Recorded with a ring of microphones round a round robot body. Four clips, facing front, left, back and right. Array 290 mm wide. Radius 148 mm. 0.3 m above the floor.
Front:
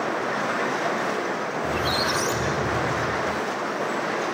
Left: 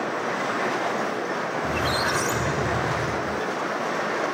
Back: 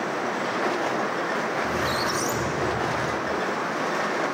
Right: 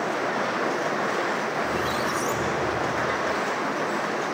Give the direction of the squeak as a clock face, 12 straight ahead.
10 o'clock.